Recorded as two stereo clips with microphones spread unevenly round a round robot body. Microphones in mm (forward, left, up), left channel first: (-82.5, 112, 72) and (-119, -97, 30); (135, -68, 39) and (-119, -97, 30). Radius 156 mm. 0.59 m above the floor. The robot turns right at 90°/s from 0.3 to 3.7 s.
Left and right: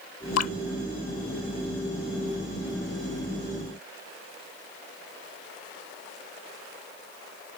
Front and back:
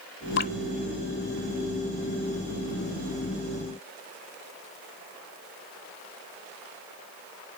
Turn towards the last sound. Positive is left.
turn(degrees=0)